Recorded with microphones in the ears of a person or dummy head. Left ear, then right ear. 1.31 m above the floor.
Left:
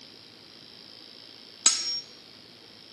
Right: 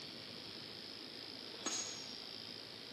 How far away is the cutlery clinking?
About 1.0 m.